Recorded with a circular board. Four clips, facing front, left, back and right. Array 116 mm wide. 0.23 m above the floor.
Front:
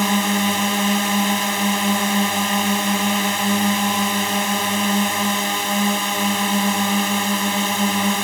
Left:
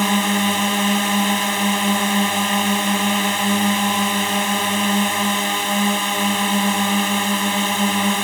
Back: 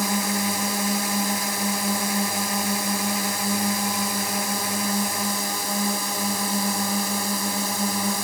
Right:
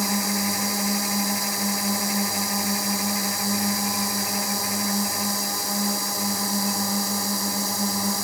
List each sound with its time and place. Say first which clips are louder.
0.0 s a drone: left 7 dB, front 6 dB; 55° left